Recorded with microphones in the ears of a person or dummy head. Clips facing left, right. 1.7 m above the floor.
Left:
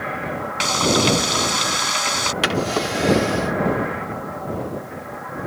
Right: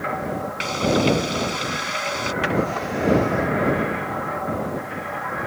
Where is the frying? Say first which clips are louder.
Even; 75° left (ahead or behind).